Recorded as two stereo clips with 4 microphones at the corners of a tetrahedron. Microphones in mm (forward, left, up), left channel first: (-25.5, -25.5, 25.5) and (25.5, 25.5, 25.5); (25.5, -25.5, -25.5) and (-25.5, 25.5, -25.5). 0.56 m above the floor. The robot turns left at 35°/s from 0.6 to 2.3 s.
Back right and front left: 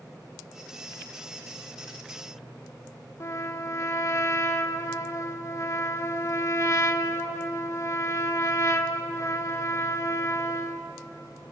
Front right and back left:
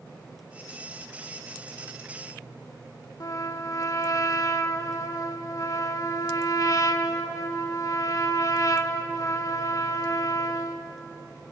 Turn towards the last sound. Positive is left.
turn(degrees=-85)